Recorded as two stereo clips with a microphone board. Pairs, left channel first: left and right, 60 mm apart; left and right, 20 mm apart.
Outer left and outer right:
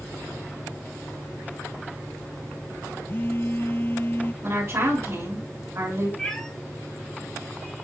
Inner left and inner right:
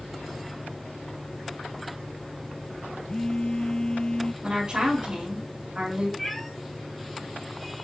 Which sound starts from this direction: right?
A woman speaking, at 4.4 s.